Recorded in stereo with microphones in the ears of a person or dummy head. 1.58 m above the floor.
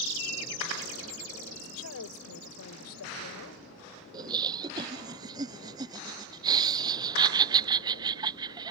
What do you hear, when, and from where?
1.5 s a woman speaking: 80° left
4.1 s laughter: 20° right (ahead or behind)